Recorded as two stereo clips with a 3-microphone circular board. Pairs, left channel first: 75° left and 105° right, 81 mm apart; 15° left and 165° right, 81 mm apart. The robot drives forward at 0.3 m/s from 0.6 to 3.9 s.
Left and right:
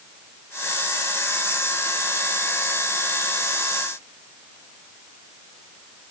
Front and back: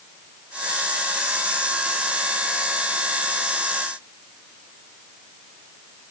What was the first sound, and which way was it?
Only background noise.